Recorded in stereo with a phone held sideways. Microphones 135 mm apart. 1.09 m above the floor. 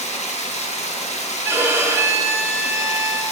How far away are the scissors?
No scissors in this recording.